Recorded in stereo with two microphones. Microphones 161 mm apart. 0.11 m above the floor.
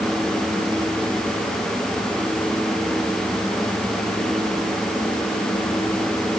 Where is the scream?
No scream in this recording.